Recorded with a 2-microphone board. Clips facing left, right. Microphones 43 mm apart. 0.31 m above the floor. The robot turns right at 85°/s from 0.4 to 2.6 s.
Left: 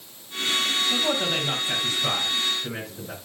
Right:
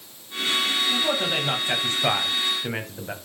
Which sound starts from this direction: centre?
A man speaking, at 0.9 s.